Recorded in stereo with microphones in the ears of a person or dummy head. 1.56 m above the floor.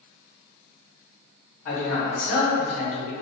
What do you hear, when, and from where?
1.6 s a man speaking: 55° left (ahead or behind), 1.3 m; by 3.1 s 75° left (ahead or behind), 1.3 m